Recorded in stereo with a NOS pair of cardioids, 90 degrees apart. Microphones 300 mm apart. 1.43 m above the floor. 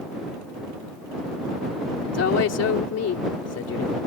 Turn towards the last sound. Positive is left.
turn(degrees=55)